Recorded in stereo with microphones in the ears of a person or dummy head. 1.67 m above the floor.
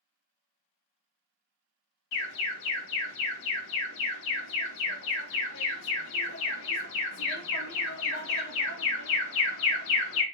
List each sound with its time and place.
2.1 s an alarm: 75° left (ahead or behind), 0.6 m